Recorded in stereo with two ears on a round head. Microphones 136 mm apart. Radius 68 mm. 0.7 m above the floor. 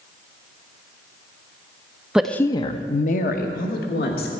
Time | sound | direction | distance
2.1 | a woman speaking | 5° right (ahead or behind) | 0.5 m